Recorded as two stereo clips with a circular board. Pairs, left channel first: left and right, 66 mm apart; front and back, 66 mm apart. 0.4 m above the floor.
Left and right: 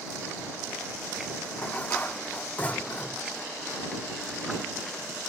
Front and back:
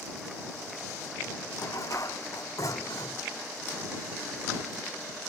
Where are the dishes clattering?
25° left.